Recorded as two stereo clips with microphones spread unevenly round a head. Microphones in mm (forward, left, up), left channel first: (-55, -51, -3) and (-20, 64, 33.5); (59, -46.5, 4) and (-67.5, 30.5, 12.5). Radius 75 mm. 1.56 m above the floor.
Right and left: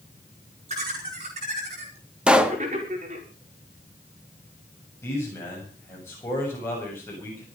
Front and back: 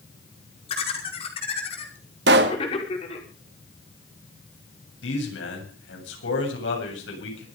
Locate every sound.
0.7 s laughter: 25° left, 5.5 m
2.3 s a pop: 150° left, 1.8 m
5.0 s a man speaking: 30° right, 7.5 m